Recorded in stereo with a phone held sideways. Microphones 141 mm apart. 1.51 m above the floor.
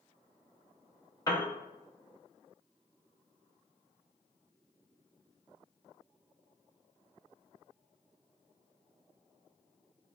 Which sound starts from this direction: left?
A piano, at 1.3 s.